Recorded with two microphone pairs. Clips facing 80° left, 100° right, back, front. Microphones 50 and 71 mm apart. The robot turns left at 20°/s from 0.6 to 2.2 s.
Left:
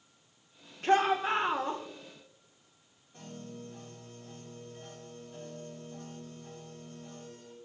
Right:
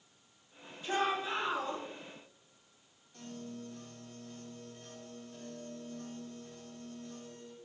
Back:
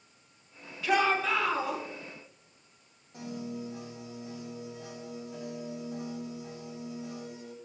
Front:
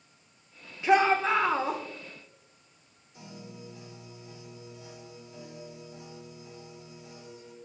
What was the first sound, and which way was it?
A shout, 65° left.